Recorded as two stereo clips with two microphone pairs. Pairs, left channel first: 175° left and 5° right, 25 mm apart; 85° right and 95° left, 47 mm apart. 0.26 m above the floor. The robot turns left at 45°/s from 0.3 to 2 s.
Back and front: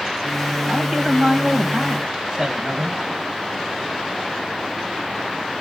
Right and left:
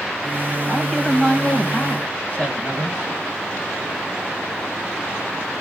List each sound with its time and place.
0.7 s a man speaking: 15° left, 1.4 m; by 3.0 s 45° right, 1.4 m